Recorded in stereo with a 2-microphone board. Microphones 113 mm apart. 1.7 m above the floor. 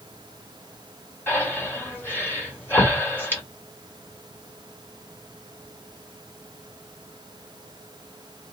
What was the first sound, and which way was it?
Breathing, 20° left (ahead or behind).